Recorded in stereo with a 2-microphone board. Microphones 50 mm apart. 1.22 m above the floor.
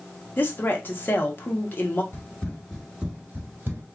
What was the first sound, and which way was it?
A woman speaking, 40° left (ahead or behind).